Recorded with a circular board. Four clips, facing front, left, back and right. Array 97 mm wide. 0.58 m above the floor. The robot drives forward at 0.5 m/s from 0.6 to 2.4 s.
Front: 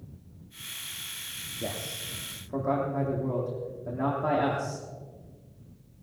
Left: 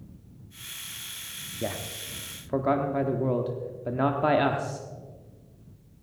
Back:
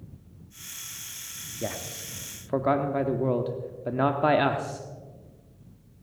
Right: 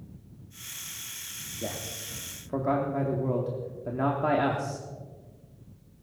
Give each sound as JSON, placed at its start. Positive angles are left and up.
{"t": 1.6, "sound": "a man speaking", "azimuth_deg": 125, "distance_m": 0.8}